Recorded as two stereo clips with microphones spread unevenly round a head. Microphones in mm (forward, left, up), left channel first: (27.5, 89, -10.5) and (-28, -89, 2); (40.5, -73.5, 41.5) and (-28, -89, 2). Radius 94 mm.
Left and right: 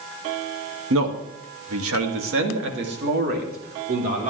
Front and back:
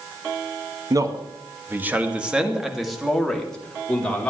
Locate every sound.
0.9 s a man speaking: 125° right, 2 m; by 4.3 s 55° right, 4.5 m